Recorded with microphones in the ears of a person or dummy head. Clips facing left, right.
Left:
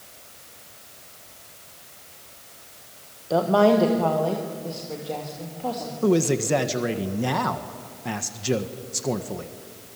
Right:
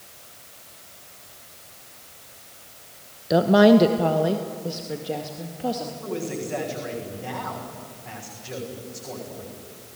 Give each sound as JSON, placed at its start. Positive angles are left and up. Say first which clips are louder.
{"t": 3.3, "sound": "a woman speaking", "louder": "right 3 dB", "side_deg": -25, "distance_m": 1.0}
{"t": 6.0, "sound": "a man speaking", "louder": "left 12 dB", "side_deg": 65, "distance_m": 1.6}